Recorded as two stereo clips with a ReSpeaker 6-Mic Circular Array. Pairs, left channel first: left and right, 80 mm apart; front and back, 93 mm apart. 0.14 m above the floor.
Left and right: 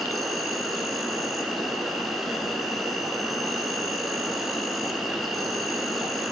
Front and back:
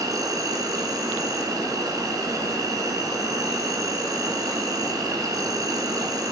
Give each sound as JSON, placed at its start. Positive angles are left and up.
{"t": 0.0, "sound": "an insect", "azimuth_deg": 180, "distance_m": 1.1}